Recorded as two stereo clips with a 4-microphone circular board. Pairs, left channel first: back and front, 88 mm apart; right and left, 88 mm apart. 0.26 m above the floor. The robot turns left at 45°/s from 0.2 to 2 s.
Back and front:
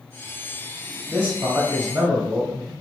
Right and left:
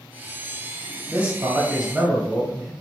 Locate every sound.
1.1 s a man speaking: 50° left, 1.0 m; by 2.7 s 10° left, 1.0 m